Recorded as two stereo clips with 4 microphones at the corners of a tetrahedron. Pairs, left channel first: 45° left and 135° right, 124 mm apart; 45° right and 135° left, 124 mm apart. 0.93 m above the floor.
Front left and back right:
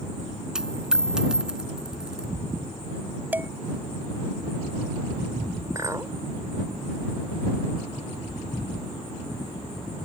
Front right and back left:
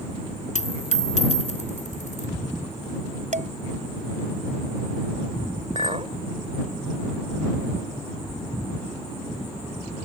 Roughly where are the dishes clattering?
Behind left.